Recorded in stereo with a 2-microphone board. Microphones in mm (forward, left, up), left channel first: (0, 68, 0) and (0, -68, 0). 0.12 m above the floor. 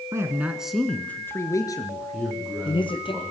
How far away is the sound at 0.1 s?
About 1.8 m.